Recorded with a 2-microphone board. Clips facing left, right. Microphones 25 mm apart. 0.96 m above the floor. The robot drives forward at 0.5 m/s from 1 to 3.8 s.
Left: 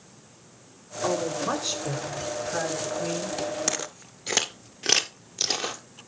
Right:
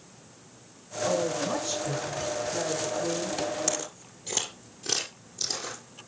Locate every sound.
1.0 s a woman speaking: 60° left (ahead or behind), 8.5 m; by 3.4 s 70° left (ahead or behind), 8 m
3.7 s footsteps: 25° left (ahead or behind), 1.0 m; by 5.8 s 65° left (ahead or behind), 2.0 m